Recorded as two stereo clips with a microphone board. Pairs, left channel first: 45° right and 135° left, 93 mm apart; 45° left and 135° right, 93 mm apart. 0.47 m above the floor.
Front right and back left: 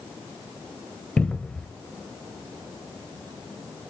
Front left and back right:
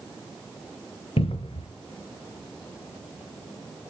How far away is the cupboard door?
About 0.5 m.